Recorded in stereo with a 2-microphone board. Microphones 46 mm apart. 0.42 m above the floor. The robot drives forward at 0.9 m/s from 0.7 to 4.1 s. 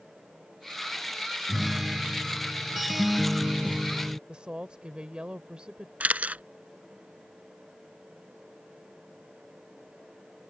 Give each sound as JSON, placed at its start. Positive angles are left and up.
{"t": 1.5, "sound": "a guitar", "side_deg": -5}
{"t": 4.3, "sound": "a woman speaking", "side_deg": -20}
{"t": 6.0, "sound": "a camera shutter", "side_deg": -35}